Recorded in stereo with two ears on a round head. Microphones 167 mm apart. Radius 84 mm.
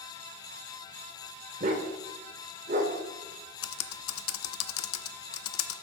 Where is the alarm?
I don't hear an alarm.